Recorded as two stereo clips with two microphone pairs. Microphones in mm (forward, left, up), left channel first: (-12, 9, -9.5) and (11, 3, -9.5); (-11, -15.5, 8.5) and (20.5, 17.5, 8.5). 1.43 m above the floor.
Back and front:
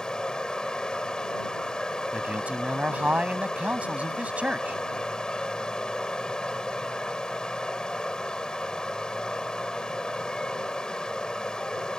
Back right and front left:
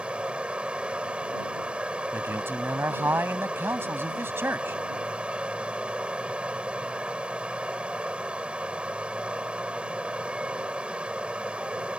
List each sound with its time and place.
0.0 s running water: 110° left
2.1 s a man speaking: 10° left